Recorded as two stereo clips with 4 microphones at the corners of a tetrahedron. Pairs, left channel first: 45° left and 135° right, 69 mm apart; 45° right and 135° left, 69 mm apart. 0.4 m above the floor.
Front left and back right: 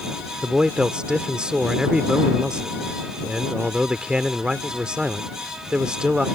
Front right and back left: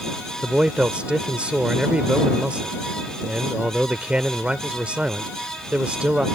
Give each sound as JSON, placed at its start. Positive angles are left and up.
{"t": 0.4, "sound": "a man speaking", "azimuth_deg": 170}